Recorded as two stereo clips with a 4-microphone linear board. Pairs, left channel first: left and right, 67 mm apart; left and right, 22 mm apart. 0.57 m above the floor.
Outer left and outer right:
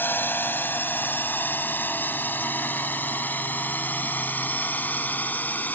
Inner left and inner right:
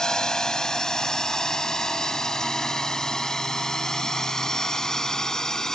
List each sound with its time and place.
0.0 s a drone: 30° left (ahead or behind); by 5.8 s 25° left (ahead or behind)